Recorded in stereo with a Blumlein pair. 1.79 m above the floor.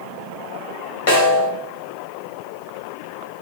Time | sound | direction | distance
1.1 | a snare drum | 55° left | 1.5 m